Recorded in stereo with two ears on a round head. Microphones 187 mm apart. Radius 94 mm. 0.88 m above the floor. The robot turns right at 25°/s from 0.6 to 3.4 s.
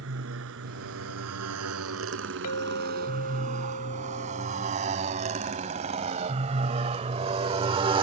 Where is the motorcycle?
75° right (ahead or behind); by 8.0 s 25° right (ahead or behind).